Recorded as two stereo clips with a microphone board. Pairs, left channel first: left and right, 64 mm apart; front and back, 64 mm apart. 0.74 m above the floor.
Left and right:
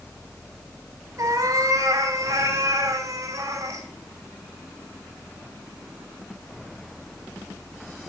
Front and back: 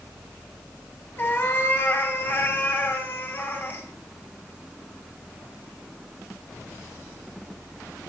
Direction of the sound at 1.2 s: 60° right.